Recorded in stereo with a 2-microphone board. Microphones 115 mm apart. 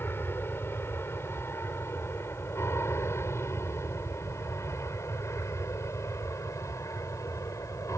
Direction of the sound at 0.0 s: 20° left (ahead or behind).